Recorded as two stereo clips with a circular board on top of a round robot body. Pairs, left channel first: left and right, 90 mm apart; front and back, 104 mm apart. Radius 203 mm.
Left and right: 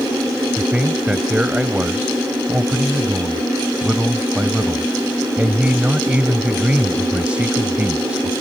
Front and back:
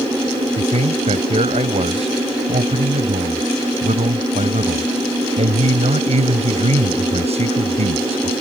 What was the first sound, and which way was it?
A man speaking, 170° right.